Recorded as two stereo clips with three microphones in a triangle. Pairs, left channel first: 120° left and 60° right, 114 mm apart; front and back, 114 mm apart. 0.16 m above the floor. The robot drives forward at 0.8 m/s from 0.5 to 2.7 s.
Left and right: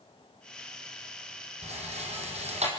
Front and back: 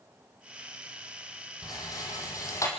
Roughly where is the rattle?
Ahead right.